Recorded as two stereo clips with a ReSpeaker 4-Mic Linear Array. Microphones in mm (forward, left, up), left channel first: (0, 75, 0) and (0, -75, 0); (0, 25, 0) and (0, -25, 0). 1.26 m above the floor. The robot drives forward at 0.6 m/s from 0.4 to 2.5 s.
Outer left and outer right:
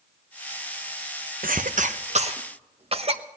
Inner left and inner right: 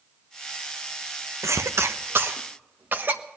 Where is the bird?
No bird in this recording.